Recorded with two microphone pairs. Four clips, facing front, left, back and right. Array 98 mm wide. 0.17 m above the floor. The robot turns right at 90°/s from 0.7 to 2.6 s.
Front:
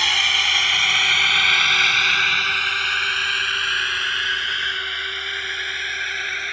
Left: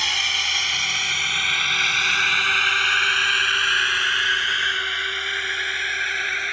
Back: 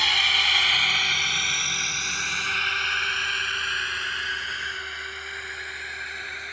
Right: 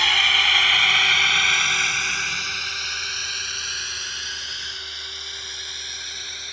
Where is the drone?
65° right; by 6.5 s 65° left.